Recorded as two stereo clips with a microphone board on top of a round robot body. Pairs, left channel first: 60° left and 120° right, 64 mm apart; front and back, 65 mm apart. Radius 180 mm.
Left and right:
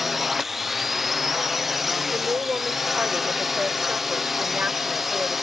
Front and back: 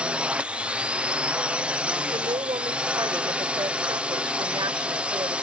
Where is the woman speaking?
170° left.